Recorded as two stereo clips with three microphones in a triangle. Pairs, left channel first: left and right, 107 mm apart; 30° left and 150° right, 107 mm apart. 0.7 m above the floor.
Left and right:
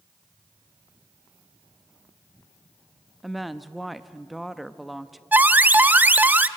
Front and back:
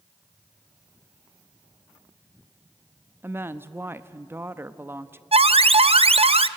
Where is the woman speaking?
Straight behind, 0.6 m.